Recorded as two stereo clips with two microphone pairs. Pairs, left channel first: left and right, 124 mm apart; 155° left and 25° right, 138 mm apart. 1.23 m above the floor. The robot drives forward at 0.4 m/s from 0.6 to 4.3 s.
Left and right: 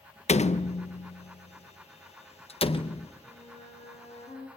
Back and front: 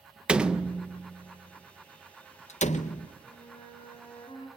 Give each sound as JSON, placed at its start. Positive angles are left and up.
{"t": 0.3, "sound": "a door slam", "azimuth_deg": 60, "distance_m": 0.7}
{"t": 3.2, "sound": "a flute", "azimuth_deg": 100, "distance_m": 5.5}